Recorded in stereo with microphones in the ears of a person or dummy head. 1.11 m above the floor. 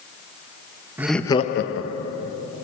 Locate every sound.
1.0 s laughter: 10° right (ahead or behind), 0.8 m; by 2.3 s 75° left (ahead or behind), 1.3 m